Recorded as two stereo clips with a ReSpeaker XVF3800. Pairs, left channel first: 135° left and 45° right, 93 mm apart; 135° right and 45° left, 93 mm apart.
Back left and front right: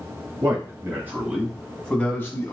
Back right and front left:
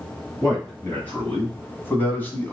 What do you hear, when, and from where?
0.4 s a man speaking: 70° right, 1.8 m; by 2.5 s 170° left, 1.7 m